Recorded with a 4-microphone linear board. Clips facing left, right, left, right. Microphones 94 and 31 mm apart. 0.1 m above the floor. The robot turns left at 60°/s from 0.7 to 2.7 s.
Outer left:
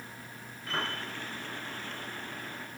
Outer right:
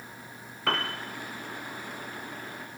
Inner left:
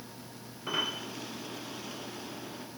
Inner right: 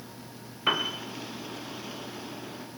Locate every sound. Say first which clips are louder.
0.7 s a piano: outer right 5 dB, inner right 5 dB; 75° right (ahead or behind), 8 m; by 1.0 s 60° right (ahead or behind), 8 m